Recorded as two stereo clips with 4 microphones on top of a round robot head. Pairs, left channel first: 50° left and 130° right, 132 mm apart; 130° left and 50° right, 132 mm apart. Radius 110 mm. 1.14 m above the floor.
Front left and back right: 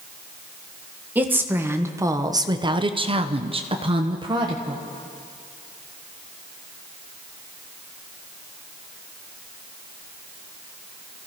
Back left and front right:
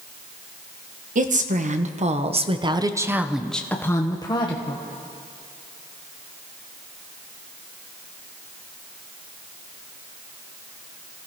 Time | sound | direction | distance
1.1 | a woman speaking | 55° right | 1.4 m